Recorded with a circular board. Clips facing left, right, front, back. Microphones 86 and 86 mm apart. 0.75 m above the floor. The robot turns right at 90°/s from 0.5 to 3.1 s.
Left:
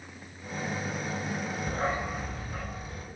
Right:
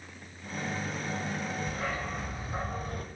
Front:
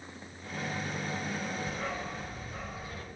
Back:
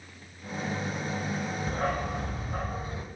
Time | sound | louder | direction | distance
1.7 | a dog barking | left 4 dB, back 6 dB | 130° left | 0.9 m